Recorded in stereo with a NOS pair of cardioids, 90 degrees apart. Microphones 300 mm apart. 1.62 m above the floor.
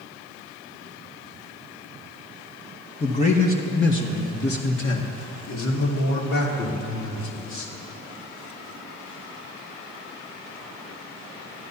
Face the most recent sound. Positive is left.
turn(degrees=80)